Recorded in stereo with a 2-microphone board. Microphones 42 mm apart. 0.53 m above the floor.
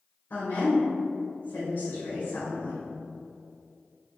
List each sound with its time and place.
0.3 s a woman speaking: 65° left (ahead or behind), 1.7 m